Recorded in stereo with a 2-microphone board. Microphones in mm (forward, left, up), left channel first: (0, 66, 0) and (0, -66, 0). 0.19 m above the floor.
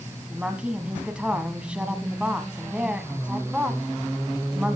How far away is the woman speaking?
About 1.7 m.